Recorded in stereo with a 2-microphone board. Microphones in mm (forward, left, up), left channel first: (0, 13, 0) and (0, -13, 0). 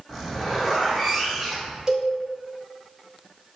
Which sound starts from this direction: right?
A cowbell, at 1.9 s.